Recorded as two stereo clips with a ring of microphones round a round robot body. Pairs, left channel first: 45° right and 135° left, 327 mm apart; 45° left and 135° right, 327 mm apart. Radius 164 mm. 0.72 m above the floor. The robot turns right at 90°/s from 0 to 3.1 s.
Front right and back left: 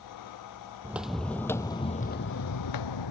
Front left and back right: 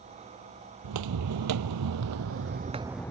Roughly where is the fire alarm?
I don't hear a fire alarm.